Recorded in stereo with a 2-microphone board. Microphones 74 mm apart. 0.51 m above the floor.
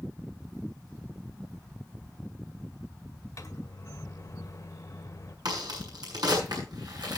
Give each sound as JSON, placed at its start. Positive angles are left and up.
{"t": 3.4, "sound": "a microwave", "side_deg": 45, "distance_m": 1.8}
{"t": 5.5, "sound": "a crack", "side_deg": -70, "distance_m": 7.0}